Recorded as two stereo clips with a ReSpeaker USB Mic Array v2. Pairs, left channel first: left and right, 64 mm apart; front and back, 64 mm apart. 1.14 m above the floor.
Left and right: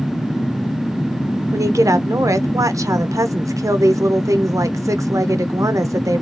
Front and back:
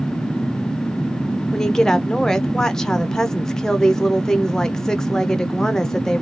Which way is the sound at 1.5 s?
80° right.